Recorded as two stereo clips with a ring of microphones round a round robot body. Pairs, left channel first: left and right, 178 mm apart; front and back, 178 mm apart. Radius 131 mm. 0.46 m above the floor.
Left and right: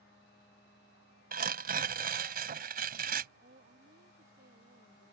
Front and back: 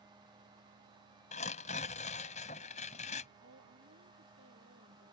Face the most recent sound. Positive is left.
turn(degrees=-145)